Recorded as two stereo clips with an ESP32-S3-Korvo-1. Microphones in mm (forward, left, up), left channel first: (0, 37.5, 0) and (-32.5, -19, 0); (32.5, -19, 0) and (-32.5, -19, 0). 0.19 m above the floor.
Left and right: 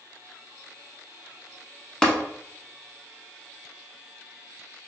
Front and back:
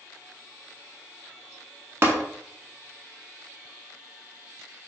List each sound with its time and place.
2.0 s tapping: 140° left, 0.8 m